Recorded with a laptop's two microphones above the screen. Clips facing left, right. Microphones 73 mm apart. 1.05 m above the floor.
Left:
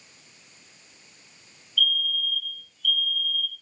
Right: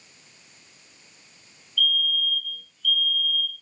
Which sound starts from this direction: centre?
A fire alarm, at 1.8 s.